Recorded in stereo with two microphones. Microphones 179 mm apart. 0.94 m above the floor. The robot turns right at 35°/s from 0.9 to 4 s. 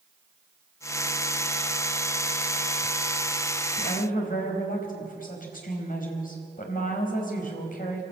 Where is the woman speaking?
60° left (ahead or behind), 4.5 m; by 8.0 s 50° left (ahead or behind), 4.5 m.